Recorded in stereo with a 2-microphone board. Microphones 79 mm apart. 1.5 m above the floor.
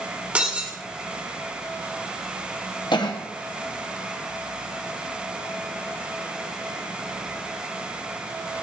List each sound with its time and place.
0.3 s breaking glass: 15° right (ahead or behind), 1.3 m
2.9 s a cough: 65° left (ahead or behind), 0.8 m